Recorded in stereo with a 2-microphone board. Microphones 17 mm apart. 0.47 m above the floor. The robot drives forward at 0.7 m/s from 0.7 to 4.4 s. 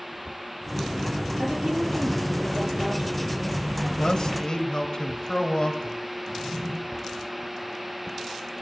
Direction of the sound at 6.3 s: 60° right (ahead or behind).